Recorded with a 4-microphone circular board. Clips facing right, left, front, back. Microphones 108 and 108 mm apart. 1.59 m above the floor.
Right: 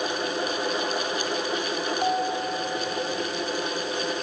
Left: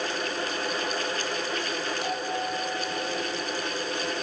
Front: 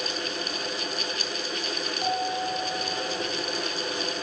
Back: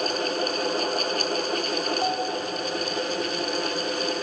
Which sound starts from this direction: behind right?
A bell, at 2.0 s.